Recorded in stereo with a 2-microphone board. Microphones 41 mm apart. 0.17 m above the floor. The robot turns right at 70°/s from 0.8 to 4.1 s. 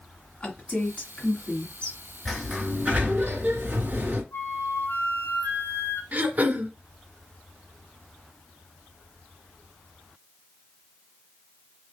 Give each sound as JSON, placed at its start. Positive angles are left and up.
{"t": 0.4, "sound": "a woman speaking", "side_deg": 30, "distance_m": 1.9}
{"t": 2.2, "sound": "a sliding door", "azimuth_deg": 170, "distance_m": 2.5}
{"t": 4.3, "sound": "a flute", "side_deg": 75, "distance_m": 2.5}
{"t": 6.1, "sound": "throat clearing", "side_deg": -45, "distance_m": 1.6}